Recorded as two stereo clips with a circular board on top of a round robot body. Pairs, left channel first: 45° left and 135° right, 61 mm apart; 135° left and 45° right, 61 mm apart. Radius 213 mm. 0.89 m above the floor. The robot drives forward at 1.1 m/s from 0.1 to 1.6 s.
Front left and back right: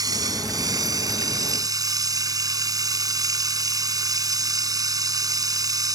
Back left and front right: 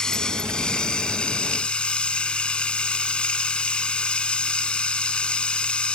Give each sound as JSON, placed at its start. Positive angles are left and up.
{"t": 0.0, "sound": "running water", "azimuth_deg": -150}